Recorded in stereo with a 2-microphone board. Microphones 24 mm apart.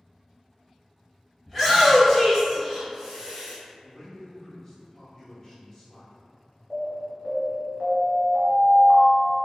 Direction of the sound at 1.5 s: 10° left (ahead or behind).